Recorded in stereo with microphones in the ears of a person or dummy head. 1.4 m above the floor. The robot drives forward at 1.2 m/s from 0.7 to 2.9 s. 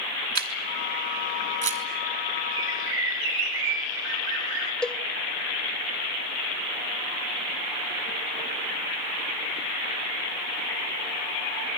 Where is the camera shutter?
55° right (ahead or behind), 3 m; by 1.8 s 40° right (ahead or behind), 4 m.